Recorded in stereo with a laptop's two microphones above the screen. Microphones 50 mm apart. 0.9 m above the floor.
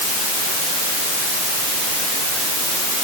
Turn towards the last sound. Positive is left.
No sound to turn to.